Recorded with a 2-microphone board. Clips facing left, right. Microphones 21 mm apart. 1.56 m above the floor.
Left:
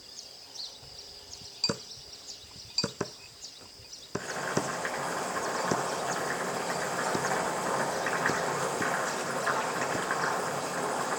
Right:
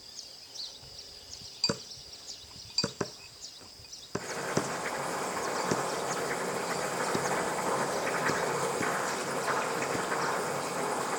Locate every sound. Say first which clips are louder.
4.2 s boiling: left 1 dB; 55° left (ahead or behind), 6.5 m